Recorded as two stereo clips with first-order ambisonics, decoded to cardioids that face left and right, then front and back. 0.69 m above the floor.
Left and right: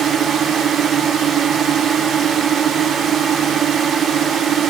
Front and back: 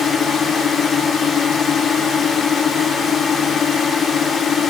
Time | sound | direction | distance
0.0 | a drone | 50° right | ?